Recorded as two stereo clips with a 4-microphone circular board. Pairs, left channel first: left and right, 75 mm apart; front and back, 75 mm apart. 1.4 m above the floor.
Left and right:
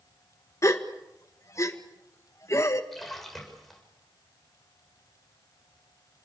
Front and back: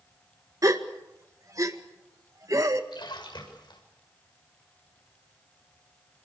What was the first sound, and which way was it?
A gasp, 135° left.